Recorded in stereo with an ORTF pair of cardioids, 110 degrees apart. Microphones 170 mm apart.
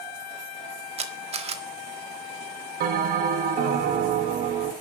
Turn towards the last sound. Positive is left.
turn(degrees=-65)